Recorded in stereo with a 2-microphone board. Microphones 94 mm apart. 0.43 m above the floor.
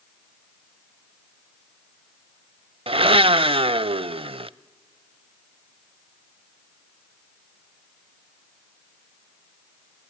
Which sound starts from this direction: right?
A blender, at 2.9 s.